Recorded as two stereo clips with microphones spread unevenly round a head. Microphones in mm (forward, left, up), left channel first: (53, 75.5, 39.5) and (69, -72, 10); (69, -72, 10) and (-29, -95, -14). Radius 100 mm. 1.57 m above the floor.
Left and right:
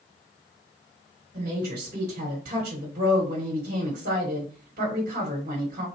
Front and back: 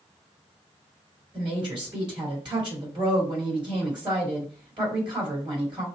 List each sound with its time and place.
1.3 s a woman speaking: 125° right, 3 m